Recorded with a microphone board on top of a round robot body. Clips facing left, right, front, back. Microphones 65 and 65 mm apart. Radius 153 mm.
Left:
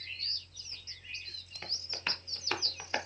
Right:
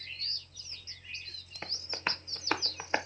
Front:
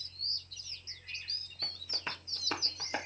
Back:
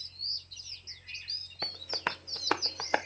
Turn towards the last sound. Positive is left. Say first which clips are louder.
# right 4 dB, back 8 dB
turn(degrees=-155)